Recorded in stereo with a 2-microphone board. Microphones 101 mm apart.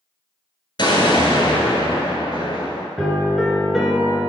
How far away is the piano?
About 0.8 m.